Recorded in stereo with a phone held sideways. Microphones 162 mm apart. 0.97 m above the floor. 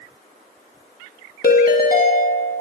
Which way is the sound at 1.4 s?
65° left (ahead or behind).